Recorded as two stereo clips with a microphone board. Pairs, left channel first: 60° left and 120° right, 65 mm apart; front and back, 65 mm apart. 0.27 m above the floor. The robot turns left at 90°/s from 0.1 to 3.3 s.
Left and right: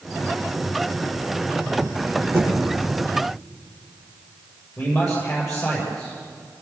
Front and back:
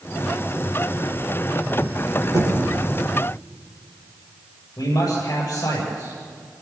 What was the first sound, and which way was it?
Knocking, 170° right.